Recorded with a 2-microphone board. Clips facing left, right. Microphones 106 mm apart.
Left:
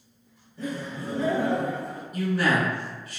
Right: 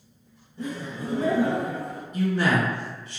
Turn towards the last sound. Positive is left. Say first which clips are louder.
# right 1 dB
turn(degrees=-25)  # may be behind; listen again after turning